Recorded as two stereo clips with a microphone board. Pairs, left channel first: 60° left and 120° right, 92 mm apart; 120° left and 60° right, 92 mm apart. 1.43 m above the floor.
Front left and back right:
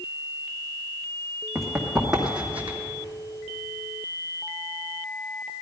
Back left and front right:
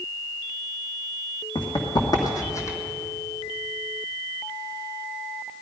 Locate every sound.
1.6 s running footsteps: 150° left, 3.5 m; by 2.8 s 175° left, 2 m